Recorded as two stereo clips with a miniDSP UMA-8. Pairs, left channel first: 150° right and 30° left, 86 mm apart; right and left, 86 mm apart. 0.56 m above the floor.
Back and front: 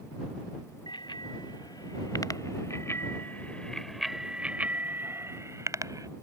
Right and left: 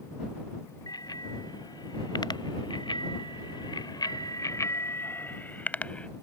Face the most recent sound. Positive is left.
turn(degrees=-15)